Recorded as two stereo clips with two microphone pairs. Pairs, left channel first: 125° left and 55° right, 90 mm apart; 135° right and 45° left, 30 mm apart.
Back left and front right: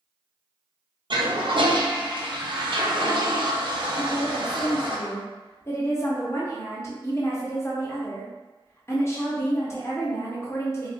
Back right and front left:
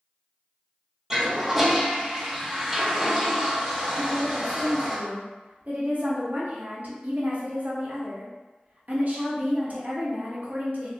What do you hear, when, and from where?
1.1 s a toilet flushing: 35° right, 0.7 m
4.0 s a woman speaking: 70° left, 0.9 m